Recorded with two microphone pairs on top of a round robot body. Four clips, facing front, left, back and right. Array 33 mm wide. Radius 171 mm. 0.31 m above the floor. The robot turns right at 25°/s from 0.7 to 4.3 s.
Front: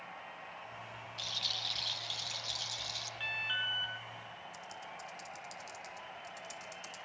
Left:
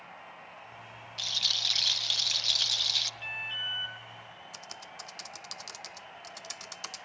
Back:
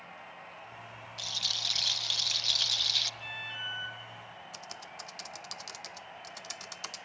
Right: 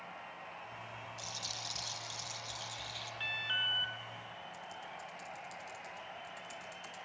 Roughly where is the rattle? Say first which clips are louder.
Left 16 dB, back 4 dB; left.